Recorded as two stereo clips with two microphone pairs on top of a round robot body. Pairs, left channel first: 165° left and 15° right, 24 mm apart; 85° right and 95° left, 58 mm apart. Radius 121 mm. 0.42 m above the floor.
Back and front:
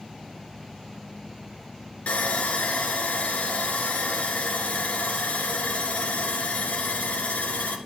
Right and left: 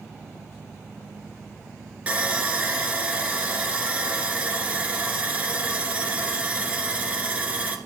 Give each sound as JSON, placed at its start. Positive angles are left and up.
{"t": 2.1, "sound": "sawing", "azimuth_deg": 160, "distance_m": 2.0}